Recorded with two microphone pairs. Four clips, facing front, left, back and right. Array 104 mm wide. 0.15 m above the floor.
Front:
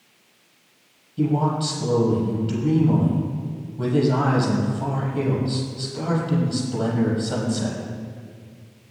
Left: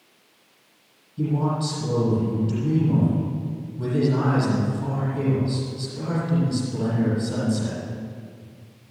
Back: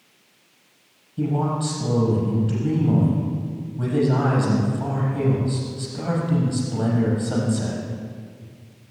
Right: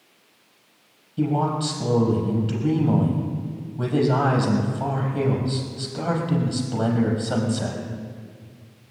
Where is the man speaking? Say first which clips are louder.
Right 2 dB, front 2 dB; 85° right, 6.5 m.